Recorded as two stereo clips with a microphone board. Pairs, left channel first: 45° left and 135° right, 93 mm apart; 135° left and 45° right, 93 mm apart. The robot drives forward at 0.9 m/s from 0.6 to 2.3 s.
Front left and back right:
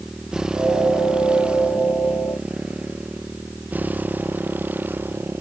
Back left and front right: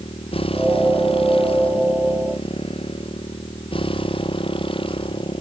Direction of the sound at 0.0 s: 145° left.